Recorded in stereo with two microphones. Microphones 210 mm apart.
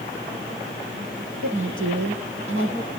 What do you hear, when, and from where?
1.4 s a woman speaking: 75° right (ahead or behind), 5.5 m